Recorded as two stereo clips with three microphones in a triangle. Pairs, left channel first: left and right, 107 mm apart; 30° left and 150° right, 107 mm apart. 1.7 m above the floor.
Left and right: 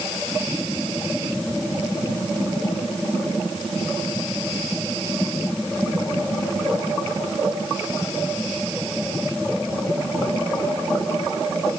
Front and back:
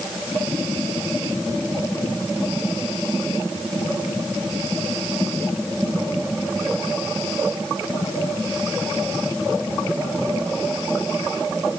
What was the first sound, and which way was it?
Only background noise.